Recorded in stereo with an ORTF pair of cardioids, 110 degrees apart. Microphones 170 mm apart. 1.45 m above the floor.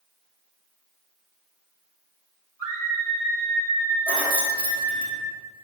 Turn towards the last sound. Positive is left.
turn(degrees=-65)